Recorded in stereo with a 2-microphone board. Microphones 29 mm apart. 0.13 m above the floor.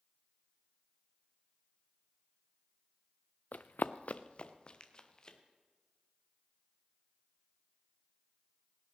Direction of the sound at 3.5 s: 65° left (ahead or behind).